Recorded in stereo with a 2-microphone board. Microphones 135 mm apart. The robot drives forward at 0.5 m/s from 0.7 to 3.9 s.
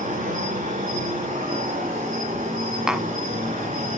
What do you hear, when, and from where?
0.0 s an insect: 70° right (ahead or behind), 8 m; by 4.0 s 80° right, 7.5 m
2.9 s tapping: 5° right (ahead or behind), 0.6 m